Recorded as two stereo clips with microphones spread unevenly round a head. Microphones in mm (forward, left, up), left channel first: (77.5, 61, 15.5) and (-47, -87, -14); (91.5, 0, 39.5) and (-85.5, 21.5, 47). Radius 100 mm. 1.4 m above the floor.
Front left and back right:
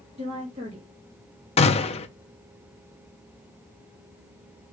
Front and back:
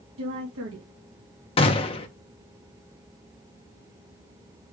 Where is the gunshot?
40° left, 0.9 m.